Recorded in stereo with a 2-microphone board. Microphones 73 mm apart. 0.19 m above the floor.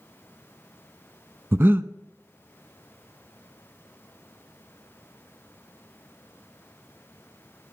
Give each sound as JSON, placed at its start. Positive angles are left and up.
{"t": 1.5, "sound": "breathing", "side_deg": -35, "distance_m": 0.5}